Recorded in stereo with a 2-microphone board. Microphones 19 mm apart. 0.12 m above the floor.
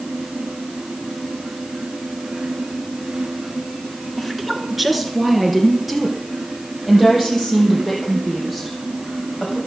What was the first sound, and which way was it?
A woman speaking, 5° right (ahead or behind).